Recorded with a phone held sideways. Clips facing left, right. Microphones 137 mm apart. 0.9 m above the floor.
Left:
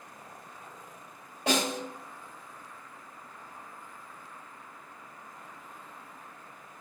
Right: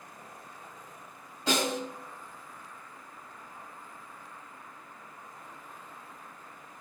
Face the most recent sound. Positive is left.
turn(degrees=80)